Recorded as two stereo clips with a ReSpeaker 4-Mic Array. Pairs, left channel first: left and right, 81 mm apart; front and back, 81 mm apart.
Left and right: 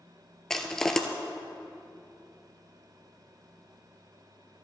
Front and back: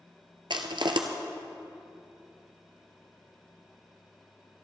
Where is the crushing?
175° left, 1.2 m.